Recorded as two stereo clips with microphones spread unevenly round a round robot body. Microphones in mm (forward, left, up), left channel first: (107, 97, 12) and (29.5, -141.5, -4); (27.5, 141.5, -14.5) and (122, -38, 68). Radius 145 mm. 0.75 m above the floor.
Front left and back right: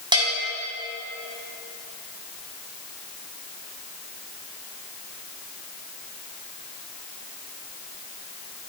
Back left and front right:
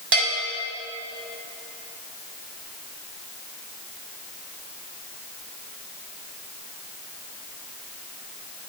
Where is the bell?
35° right, 6.5 m.